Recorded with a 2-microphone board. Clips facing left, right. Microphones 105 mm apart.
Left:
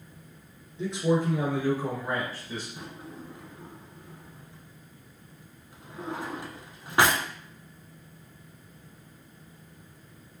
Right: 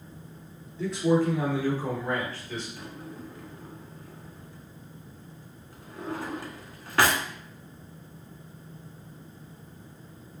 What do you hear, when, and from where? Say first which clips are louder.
0.8 s a man speaking: right 2 dB; 20° left (ahead or behind), 1.7 m; by 2.7 s 15° left (ahead or behind), 2.5 m
2.8 s a drawer: right 1 dB; 20° left (ahead or behind), 0.7 m